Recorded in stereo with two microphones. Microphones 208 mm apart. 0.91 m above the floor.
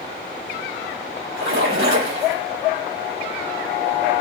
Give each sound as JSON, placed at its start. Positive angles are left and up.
{"t": 1.4, "sound": "a splash", "side_deg": -75, "distance_m": 4.5}